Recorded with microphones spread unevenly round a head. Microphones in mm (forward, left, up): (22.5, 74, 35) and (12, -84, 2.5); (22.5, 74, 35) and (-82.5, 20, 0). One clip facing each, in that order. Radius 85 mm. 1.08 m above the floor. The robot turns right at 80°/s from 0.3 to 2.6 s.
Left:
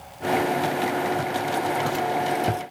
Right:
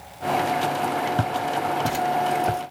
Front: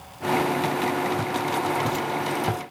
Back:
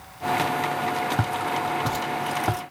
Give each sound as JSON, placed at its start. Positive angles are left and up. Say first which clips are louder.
{"t": 1.2, "sound": "footsteps", "louder": "right 1 dB, front 1 dB", "azimuth_deg": -105, "distance_m": 1.5}